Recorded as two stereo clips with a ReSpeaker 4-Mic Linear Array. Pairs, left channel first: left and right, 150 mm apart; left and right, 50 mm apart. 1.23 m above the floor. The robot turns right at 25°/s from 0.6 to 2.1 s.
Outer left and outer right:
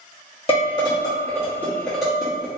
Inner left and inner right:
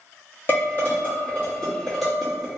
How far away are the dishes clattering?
About 1.6 m.